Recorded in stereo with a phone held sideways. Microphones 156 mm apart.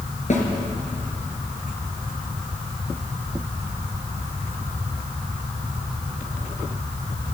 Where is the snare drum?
50° left (ahead or behind), 4 m.